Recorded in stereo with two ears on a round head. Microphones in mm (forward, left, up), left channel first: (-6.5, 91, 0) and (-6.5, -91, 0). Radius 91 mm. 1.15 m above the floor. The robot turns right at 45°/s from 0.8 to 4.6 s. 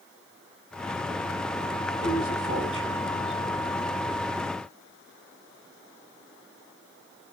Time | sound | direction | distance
2.0 | a man speaking | 55° right (ahead or behind) | 7 m